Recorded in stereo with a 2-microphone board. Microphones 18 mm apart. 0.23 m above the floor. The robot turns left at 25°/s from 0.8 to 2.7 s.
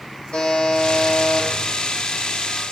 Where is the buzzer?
85° left, 3 m; by 1.5 s 70° left (ahead or behind), 3 m.